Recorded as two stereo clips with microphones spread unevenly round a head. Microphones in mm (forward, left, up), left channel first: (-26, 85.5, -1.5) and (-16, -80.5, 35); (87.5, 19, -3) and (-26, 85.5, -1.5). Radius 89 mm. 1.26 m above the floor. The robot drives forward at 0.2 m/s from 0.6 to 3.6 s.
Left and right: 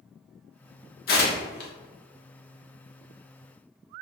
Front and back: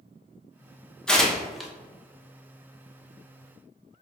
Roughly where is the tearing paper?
Ahead left.